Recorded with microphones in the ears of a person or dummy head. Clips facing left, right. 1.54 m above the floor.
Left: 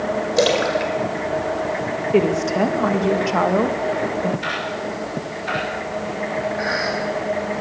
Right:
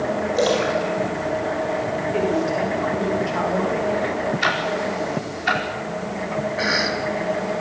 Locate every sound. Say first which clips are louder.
0.4 s a splash: left 2 dB; 30° left (ahead or behind), 5 m
2.1 s a woman speaking: left 5 dB; 55° left (ahead or behind), 2.5 m
4.4 s ticking: right 3 dB; 85° right, 5 m
6.6 s a cough: even; 45° right (ahead or behind), 4 m